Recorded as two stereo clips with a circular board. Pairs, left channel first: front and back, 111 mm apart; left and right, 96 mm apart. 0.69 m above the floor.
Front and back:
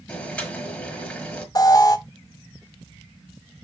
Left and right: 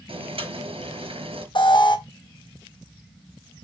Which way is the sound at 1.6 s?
55° left.